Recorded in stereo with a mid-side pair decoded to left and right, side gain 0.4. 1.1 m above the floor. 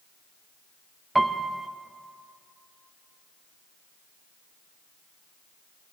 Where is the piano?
15° right, 0.5 m.